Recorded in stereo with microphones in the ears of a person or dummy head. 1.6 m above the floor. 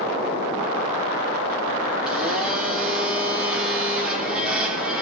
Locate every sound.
2.1 s a blender: 5° right (ahead or behind), 3 m